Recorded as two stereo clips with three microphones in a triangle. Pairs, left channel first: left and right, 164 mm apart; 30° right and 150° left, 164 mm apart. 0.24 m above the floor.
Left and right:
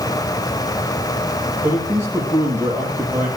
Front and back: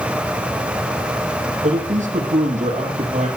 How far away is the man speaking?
About 7 m.